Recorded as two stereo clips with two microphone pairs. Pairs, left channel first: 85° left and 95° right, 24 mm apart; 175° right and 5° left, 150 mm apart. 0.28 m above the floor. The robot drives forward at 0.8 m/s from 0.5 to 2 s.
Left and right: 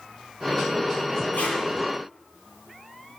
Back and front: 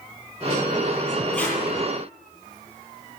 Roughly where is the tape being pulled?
Left.